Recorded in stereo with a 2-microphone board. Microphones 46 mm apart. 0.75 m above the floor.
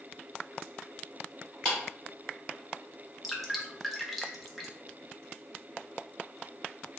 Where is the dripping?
Centre (ahead or behind), 0.6 m.